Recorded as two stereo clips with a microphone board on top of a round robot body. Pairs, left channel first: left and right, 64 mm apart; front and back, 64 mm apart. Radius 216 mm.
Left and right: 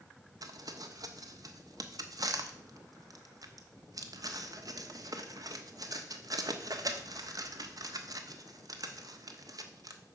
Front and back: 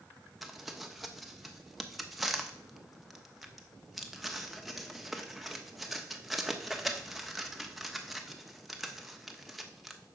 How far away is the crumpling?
About 1.2 m.